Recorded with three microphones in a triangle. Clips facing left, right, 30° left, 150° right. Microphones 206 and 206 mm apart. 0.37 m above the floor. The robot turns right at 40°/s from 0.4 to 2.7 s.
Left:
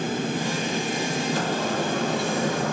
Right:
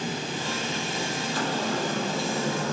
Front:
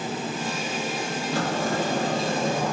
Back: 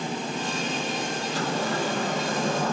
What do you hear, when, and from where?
1.3 s a sliding door: 50° left, 0.7 m; by 2.7 s 105° left, 0.7 m